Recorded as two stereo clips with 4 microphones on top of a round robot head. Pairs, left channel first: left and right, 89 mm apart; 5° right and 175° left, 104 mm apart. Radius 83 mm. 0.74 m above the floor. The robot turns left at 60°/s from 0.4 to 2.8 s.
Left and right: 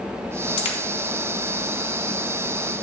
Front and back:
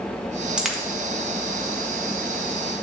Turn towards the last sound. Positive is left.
turn(degrees=-40)